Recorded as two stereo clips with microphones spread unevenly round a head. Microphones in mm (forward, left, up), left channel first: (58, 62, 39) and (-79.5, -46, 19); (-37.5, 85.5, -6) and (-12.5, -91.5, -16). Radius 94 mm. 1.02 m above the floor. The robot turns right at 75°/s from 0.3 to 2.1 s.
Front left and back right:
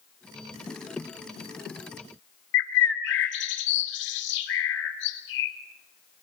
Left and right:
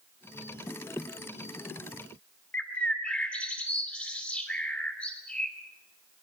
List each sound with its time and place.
2.5 s a bird: 15° left, 2.5 m